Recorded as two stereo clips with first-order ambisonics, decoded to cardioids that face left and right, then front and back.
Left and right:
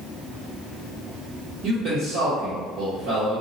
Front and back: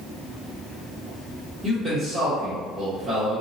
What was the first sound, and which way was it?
A man speaking, 115° right.